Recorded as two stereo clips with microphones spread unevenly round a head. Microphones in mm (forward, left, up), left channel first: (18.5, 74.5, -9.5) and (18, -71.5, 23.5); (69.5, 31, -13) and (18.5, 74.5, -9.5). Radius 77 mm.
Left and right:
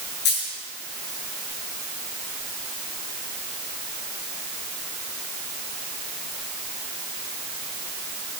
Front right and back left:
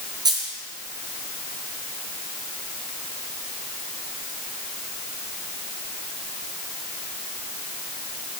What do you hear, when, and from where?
0.2 s a dropped coin: 115° left, 6.5 m